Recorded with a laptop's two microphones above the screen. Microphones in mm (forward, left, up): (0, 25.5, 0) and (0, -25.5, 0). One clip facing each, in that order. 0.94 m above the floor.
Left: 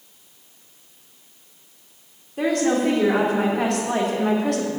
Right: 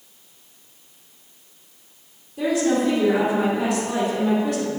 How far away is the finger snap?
No finger snap in this recording.